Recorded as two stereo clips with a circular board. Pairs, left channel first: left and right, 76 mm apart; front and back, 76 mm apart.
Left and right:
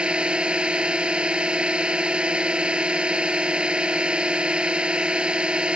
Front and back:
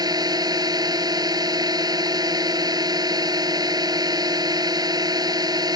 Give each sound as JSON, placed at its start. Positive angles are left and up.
{"t": 0.0, "sound": "a drone", "azimuth_deg": -165}